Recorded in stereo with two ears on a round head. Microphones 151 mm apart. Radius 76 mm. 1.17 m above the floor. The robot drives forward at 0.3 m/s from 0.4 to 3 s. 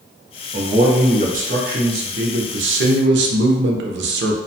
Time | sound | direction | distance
0.5 | a man speaking | 35° right (ahead or behind) | 0.8 m